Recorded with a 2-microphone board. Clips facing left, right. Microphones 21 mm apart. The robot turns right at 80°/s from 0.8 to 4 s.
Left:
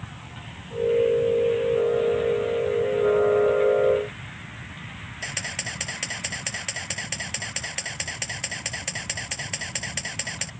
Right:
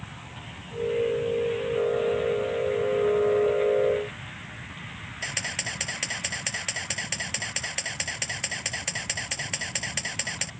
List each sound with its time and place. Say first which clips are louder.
5.2 s a camera shutter: even; centre (ahead or behind)